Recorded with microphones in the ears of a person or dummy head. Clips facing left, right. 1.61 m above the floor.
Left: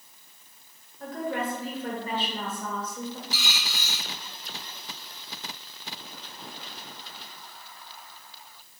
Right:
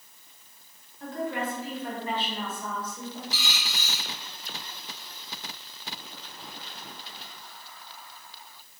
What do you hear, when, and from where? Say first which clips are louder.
1.0 s a woman speaking: left 1 dB; 45° left (ahead or behind), 1.6 m
3.3 s a dropped coin: left 1 dB; 45° left (ahead or behind), 1.5 m